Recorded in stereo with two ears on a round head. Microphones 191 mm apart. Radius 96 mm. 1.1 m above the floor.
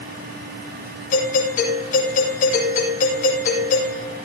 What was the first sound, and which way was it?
A doorbell, 40° left (ahead or behind).